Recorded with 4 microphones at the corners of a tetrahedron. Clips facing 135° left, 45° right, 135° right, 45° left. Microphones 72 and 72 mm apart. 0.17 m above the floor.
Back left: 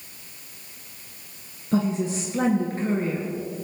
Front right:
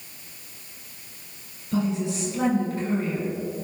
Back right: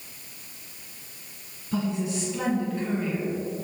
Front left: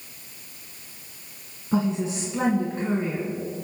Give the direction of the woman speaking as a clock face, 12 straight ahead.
9 o'clock.